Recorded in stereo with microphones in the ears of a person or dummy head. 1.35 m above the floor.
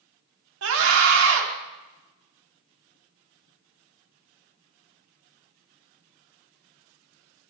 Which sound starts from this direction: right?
A scream, at 0.6 s.